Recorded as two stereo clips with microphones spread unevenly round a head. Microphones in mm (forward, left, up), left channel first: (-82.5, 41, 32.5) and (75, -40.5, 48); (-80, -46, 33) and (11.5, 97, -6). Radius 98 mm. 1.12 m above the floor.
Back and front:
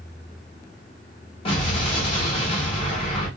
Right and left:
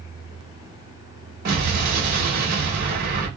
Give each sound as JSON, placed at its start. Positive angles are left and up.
{"t": 1.4, "sound": "an explosion", "azimuth_deg": 90, "distance_m": 1.0}